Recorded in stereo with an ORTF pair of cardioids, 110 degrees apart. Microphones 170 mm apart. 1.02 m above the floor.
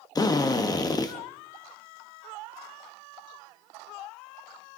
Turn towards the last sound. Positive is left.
turn(degrees=20)